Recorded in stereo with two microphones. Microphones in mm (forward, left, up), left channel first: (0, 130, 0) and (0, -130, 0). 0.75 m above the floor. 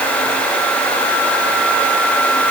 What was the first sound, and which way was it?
Only background noise.